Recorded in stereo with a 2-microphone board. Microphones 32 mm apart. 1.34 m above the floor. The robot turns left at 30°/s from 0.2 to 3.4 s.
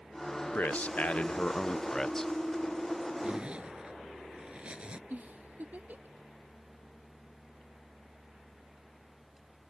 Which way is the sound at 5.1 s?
60° right (ahead or behind).